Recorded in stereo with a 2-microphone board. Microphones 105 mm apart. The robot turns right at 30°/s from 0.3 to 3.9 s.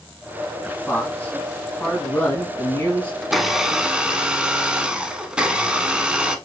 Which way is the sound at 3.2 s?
Centre (ahead or behind).